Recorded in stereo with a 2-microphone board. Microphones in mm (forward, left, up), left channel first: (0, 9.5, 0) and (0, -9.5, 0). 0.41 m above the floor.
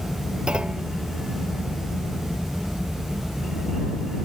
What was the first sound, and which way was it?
A clunk, 60° right (ahead or behind).